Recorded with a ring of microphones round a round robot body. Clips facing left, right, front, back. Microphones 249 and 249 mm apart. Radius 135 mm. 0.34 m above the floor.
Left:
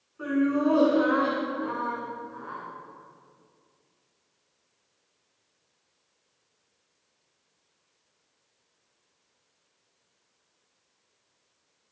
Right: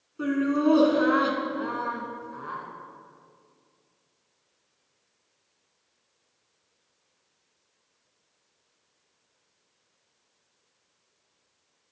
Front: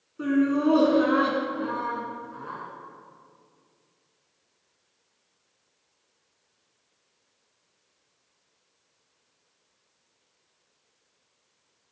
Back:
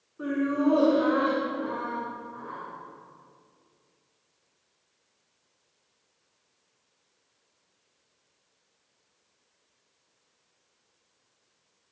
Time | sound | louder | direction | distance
0.2 | laughter | even, front 3 dB | 55° right | 3 m